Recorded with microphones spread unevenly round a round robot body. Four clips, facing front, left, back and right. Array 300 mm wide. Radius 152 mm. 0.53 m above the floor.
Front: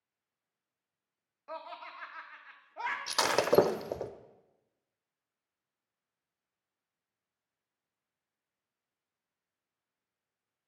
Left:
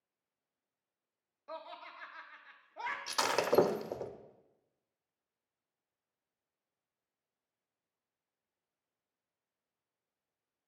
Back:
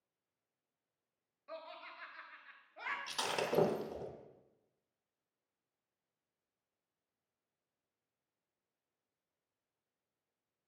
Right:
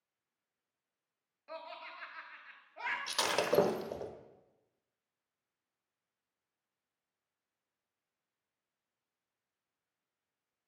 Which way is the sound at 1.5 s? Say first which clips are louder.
Even, front 6 dB; 35° left.